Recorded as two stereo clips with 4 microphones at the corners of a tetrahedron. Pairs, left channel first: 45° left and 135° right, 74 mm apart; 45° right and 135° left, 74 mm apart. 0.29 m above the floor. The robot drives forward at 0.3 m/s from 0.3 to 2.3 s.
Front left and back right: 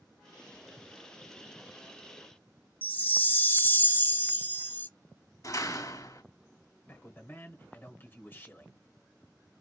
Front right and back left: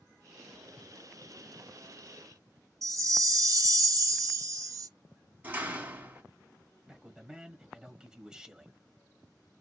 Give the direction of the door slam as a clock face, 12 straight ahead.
10 o'clock.